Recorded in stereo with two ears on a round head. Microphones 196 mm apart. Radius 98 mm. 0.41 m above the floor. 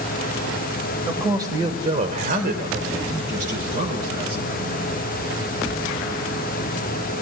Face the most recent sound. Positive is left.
turn(degrees=-40)  # may be behind; listen again after turning